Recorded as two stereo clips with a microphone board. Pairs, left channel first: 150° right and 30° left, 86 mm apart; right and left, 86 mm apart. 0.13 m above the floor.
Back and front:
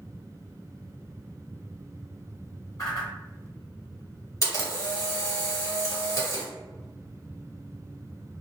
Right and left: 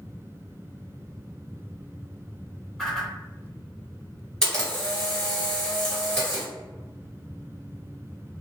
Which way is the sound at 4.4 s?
170° right.